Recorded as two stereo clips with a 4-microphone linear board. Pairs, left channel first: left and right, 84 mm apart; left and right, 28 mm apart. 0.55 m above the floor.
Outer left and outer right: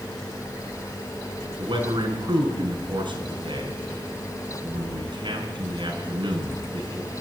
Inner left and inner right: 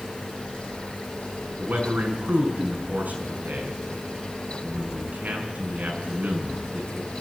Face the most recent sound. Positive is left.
turn(degrees=-70)  # may be behind; listen again after turning